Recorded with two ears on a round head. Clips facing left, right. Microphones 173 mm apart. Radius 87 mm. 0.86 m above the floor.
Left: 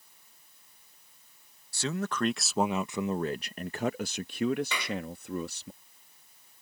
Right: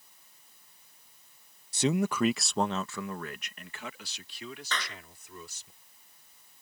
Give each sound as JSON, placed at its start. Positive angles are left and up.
{"t": 1.7, "sound": "a man speaking", "side_deg": -20}
{"t": 4.7, "sound": "a clap", "side_deg": 10}